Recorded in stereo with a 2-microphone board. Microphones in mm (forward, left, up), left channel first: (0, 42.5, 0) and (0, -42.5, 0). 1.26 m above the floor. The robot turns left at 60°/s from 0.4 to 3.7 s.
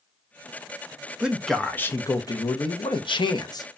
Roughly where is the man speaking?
Behind.